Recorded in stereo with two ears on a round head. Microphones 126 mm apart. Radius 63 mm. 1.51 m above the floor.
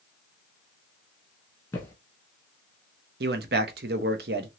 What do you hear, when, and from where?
1.7 s footsteps: 15° left (ahead or behind), 1.5 m
3.2 s a man speaking: 75° right (ahead or behind), 0.7 m